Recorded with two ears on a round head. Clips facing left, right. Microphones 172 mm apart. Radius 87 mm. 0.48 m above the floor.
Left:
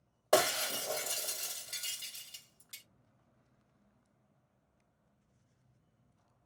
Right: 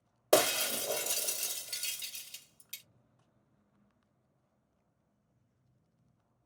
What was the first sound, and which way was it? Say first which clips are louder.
Breaking glass: right 2 dB; 30° right (ahead or behind).